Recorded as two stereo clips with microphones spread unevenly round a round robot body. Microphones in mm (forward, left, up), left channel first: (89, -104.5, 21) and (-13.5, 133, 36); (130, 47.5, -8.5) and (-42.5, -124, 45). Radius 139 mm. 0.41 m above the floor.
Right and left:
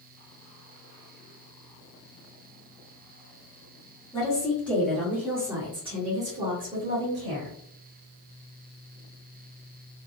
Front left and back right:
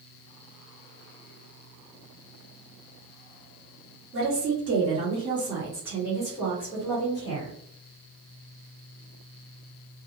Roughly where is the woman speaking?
Behind right.